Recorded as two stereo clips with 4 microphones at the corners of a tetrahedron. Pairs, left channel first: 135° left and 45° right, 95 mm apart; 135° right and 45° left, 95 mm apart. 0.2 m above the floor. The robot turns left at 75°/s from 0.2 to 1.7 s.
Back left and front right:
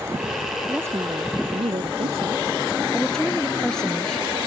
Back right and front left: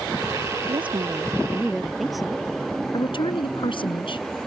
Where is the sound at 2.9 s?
145° right.